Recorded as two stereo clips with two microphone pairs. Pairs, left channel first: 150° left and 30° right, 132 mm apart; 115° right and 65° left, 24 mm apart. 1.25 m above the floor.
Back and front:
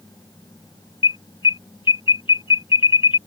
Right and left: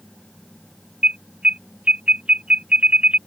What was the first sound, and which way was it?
An alarm, 100° left.